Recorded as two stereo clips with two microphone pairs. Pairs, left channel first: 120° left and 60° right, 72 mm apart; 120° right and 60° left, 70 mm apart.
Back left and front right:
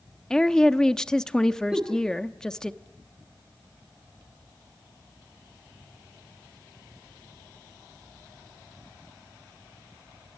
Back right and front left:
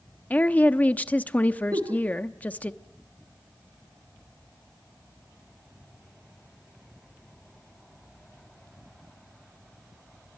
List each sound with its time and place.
0.3 s a woman speaking: 170° right, 0.9 m
1.7 s a giggle: 20° left, 4.5 m